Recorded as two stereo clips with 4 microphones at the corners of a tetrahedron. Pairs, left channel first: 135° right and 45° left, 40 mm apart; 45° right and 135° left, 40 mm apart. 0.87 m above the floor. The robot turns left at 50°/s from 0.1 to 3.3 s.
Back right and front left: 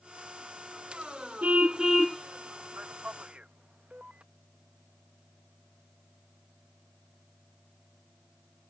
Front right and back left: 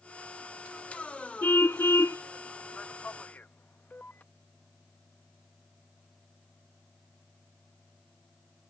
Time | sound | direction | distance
1.4 | a car horn | 10° right | ?
2.8 | a man speaking | 15° left | ?